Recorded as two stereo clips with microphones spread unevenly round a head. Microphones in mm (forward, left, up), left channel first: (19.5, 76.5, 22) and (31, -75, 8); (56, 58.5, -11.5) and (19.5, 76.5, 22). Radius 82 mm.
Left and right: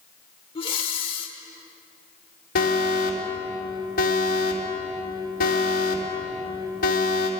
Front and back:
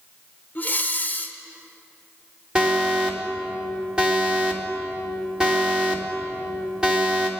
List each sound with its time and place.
0.6 s breathing: 40° left, 1.7 m
2.5 s an alarm: 70° left, 3.5 m